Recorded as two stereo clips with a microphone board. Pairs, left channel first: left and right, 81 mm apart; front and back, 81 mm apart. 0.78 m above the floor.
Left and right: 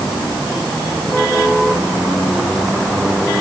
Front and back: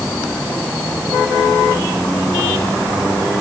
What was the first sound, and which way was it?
Only background noise.